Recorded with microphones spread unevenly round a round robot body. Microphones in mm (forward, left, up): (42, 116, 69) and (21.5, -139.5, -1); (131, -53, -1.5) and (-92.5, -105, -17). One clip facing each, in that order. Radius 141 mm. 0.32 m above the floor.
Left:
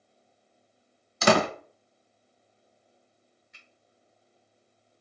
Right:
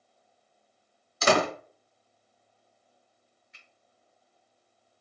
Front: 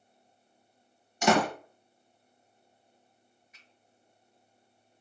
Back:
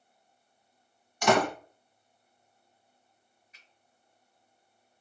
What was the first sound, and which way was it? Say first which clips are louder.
A door slam: left 2 dB, even; 85° left.